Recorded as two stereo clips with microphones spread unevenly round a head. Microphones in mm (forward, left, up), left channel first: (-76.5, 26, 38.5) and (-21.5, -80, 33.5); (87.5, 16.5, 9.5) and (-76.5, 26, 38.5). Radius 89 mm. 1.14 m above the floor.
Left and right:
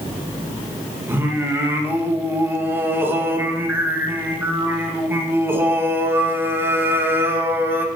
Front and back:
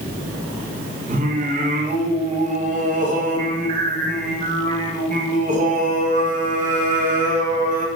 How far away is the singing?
About 1.7 m.